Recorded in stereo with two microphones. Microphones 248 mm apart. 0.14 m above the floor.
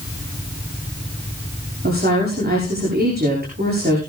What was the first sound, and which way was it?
A woman speaking, 40° right (ahead or behind).